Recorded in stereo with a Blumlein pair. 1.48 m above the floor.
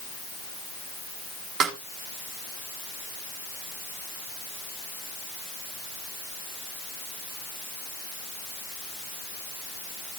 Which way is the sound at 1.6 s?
30° right.